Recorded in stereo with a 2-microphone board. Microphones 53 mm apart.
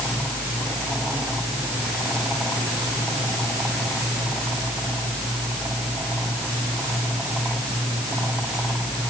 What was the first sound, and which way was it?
Only background noise.